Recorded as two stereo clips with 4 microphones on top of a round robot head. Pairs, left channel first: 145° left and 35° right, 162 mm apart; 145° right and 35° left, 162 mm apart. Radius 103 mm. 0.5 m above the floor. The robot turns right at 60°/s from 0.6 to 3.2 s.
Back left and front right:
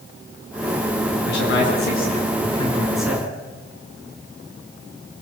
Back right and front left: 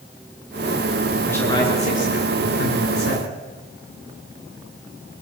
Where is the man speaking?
135° left, 10 m; by 3.3 s 110° right, 10 m.